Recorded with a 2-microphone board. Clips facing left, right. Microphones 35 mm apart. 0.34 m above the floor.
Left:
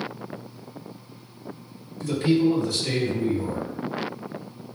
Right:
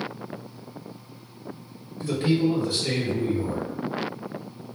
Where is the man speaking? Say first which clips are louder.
Left 2 dB; 35° right (ahead or behind), 1.9 m.